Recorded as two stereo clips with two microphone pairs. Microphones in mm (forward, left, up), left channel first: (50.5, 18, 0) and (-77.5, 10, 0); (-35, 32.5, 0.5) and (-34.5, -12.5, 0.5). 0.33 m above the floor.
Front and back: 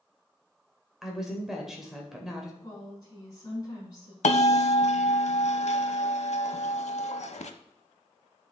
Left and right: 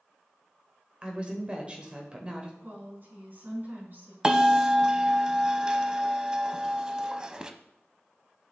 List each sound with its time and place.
1.0 s a woman speaking: 95° right, 1.2 m
2.6 s a woman speaking: 55° right, 4 m
4.2 s a bell: 20° right, 0.5 m